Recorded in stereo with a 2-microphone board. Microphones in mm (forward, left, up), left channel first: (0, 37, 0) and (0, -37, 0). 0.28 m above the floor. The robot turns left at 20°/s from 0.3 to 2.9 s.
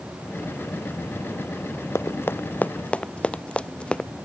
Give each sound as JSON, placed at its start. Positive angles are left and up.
{"t": 1.9, "sound": "running footsteps", "side_deg": 40}